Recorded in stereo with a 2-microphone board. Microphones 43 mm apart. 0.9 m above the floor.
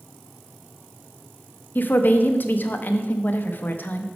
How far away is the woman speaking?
About 0.5 m.